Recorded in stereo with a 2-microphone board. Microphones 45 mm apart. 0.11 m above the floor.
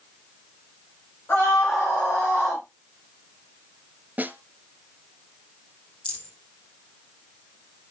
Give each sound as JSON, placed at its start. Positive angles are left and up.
{"t": 1.3, "sound": "a scream", "side_deg": 55, "distance_m": 8.0}
{"t": 4.2, "sound": "a snare drum", "side_deg": -35, "distance_m": 1.2}
{"t": 6.0, "sound": "a rattle", "side_deg": 25, "distance_m": 4.5}